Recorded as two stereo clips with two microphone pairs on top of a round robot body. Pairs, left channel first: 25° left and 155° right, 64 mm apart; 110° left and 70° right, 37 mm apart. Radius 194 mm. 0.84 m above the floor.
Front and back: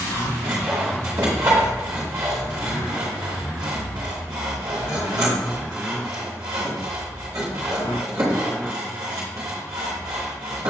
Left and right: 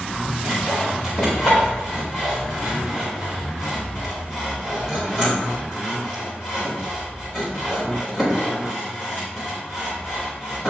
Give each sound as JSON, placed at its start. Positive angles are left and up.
{"t": 0.4, "sound": "sawing", "azimuth_deg": 170, "distance_m": 0.6}